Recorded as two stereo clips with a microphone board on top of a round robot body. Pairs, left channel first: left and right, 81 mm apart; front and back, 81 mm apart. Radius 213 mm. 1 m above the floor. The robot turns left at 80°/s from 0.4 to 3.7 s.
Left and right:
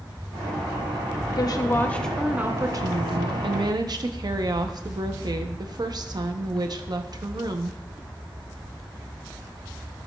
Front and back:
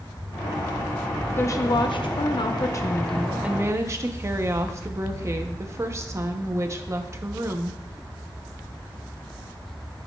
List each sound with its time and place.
1.4 s a woman speaking: 60° left, 0.7 m; by 7.8 s 125° right, 0.7 m